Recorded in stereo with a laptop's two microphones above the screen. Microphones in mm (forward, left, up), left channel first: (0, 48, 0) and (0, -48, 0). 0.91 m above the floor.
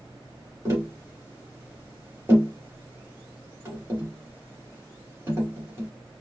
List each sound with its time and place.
0.7 s tapping: 25° right (ahead or behind), 2.5 m